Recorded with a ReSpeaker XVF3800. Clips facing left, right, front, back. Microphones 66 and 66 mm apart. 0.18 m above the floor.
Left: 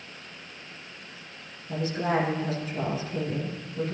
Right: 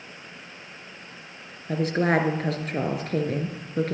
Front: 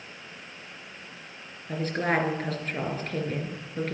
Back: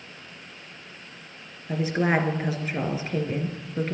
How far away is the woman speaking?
About 2.5 m.